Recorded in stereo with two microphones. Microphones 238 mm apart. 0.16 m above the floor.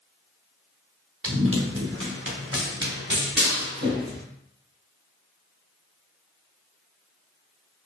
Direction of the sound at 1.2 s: 65° right (ahead or behind).